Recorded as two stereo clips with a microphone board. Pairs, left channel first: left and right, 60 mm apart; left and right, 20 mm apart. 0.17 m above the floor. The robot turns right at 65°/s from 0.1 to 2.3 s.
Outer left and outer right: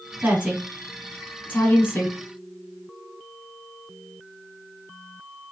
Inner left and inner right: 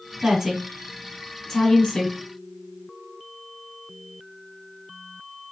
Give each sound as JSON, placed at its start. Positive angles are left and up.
{"t": 0.2, "sound": "a woman speaking", "side_deg": -20, "distance_m": 1.6}